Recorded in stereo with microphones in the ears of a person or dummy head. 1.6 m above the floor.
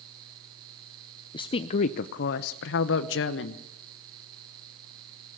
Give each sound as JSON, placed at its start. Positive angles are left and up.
{"t": 1.3, "sound": "a woman speaking", "side_deg": 25, "distance_m": 0.7}